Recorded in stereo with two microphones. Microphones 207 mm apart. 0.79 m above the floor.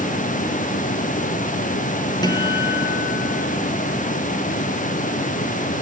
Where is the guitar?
20° left (ahead or behind), 3.5 m.